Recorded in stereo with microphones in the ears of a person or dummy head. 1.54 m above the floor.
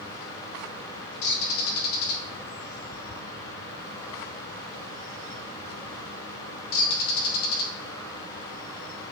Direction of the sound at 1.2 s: 70° left (ahead or behind).